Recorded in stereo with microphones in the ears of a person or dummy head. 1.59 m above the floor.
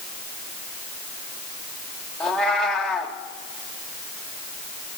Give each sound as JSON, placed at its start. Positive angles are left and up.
{"t": 2.2, "sound": "a cat meowing", "side_deg": 5, "distance_m": 1.4}